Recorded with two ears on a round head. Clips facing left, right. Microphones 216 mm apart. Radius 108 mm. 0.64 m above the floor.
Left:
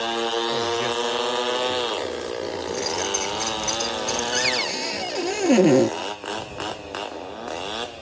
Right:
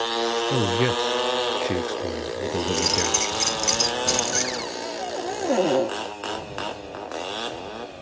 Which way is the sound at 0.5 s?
60° right (ahead or behind).